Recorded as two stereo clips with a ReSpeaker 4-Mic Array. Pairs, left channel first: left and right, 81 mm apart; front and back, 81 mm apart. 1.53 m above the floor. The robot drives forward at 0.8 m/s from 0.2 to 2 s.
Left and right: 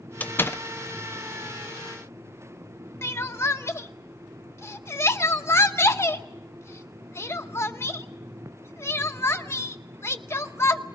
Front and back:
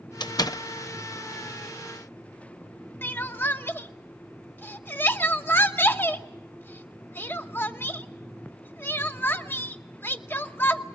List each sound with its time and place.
0.2 s a door slam: 20° left, 0.7 m; by 0.6 s 40° left, 0.5 m
3.0 s crying: 50° left, 0.9 m